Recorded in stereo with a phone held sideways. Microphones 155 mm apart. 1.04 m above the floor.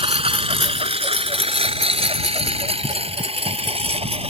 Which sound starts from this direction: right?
A lawn mower, at 0.0 s.